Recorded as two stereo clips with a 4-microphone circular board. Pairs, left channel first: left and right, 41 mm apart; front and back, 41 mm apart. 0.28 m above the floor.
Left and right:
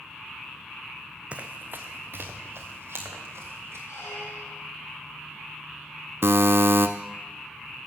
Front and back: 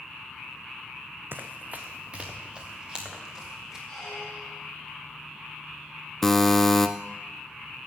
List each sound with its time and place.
1.3 s running footsteps: 145° right, 0.9 m; by 3.8 s 105° right, 3.5 m
3.9 s a squeak: 80° left, 6 m
6.2 s a buzzer: 80° right, 0.8 m